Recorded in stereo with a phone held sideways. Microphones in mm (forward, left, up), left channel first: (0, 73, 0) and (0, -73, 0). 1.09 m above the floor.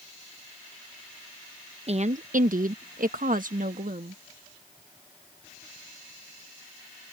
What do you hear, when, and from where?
1.9 s a woman speaking: 45° right (ahead or behind); by 4.2 s 60° right (ahead or behind)